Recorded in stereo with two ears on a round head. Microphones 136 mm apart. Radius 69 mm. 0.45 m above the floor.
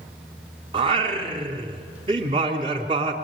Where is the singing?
35° right (ahead or behind), 2.5 m.